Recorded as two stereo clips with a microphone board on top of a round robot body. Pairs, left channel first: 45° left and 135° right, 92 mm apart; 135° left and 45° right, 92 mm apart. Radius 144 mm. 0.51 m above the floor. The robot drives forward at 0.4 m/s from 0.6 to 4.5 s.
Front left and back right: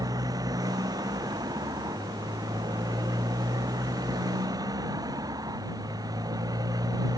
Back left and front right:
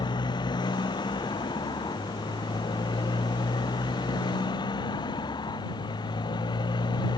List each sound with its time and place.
0.0 s a motorcycle: 175° left